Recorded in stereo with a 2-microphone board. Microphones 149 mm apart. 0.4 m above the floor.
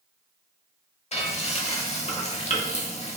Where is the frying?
50° left (ahead or behind), 0.8 m.